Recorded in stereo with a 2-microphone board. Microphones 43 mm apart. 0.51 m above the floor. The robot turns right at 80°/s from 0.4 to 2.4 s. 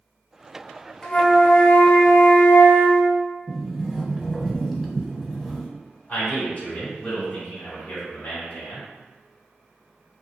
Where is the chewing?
I don't hear chewing.